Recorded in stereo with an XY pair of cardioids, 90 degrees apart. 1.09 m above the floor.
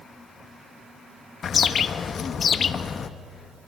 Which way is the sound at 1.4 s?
55° left.